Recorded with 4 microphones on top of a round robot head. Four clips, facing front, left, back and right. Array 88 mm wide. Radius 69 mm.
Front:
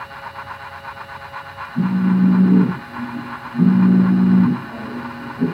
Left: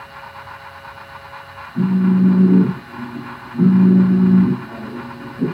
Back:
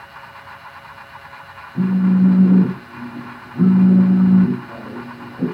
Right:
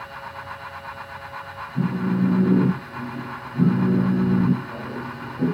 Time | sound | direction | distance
1.8 | a phone buzzing | 170° right | 4 m